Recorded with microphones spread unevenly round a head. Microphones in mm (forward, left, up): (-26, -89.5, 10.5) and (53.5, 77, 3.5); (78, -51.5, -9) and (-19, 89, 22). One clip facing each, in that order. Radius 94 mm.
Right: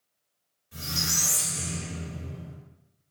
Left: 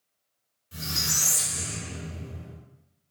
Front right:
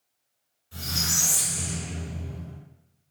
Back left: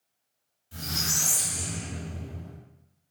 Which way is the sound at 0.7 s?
90° left.